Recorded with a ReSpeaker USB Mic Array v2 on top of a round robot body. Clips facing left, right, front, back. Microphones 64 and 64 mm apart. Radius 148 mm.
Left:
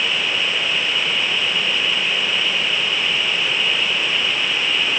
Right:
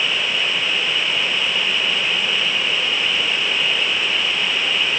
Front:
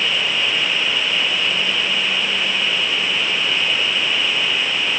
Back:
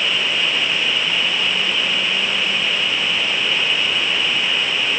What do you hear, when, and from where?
Only background noise.